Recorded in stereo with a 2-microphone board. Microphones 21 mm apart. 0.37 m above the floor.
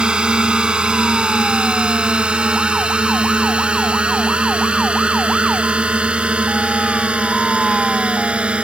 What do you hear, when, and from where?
0.0 s a drone: 45° right (ahead or behind); by 8.7 s 65° right (ahead or behind)